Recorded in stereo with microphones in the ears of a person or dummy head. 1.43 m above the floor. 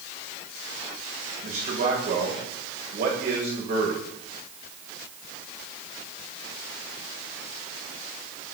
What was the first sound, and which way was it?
A man speaking, 55° right (ahead or behind).